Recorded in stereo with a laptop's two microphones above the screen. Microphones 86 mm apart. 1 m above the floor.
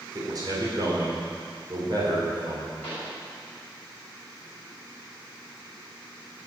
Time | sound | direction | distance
0.1 | a man speaking | 50° right (ahead or behind) | 3.5 m
2.8 | a pop | 20° left (ahead or behind) | 6 m